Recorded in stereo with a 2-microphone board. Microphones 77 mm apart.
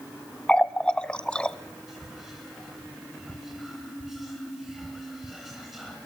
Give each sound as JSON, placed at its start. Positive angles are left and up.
{"t": 0.5, "sound": "a running tap", "side_deg": 15, "distance_m": 0.6}
{"t": 1.9, "sound": "whispering", "side_deg": -5, "distance_m": 2.5}